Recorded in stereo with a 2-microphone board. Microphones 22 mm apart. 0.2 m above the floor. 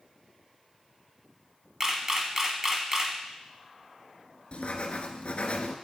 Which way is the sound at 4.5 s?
65° left (ahead or behind).